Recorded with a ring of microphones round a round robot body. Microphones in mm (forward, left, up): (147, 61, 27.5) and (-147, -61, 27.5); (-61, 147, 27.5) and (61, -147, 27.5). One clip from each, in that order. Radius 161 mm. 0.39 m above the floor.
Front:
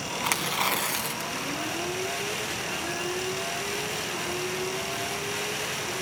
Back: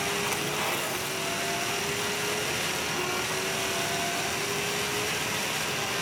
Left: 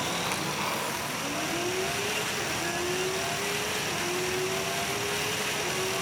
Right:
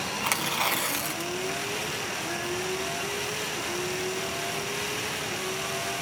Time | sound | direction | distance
0.2 | tearing paper | 20° right | 2.5 m